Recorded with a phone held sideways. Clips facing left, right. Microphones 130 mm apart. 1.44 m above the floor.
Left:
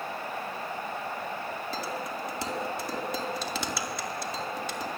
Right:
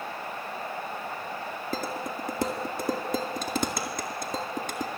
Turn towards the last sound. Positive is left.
turn(degrees=-50)  # may be behind; listen again after turning